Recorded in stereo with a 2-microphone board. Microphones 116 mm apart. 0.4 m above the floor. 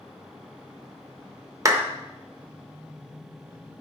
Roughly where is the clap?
Right.